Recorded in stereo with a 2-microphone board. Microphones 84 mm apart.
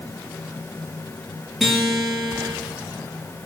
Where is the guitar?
Centre (ahead or behind), 3.5 m.